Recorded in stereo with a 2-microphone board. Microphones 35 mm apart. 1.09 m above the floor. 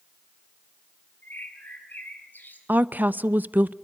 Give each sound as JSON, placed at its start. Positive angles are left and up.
{"t": 1.2, "sound": "a bird", "side_deg": 60, "distance_m": 6.0}
{"t": 2.7, "sound": "a woman speaking", "side_deg": -60, "distance_m": 0.8}